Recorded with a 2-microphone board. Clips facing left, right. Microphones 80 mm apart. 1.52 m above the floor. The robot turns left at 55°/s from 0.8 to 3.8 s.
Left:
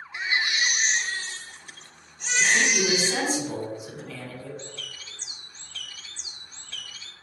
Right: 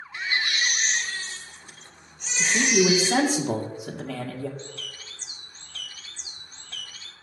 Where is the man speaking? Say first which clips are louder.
Right 2 dB; 25° right, 2 m; by 4.5 s 105° right, 2 m.